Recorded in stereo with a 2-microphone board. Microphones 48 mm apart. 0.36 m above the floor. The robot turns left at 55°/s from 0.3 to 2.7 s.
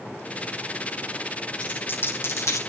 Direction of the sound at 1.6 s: 25° left (ahead or behind).